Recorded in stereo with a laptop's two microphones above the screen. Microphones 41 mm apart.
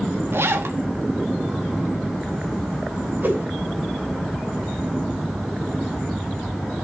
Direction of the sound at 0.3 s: 75° right (ahead or behind).